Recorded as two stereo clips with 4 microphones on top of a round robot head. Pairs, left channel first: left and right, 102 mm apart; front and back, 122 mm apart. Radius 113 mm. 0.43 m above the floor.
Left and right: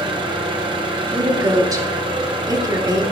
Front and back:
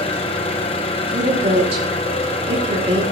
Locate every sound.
0.0 s an engine running: 45° right, 1.1 m
1.1 s a woman speaking: 140° right, 3.5 m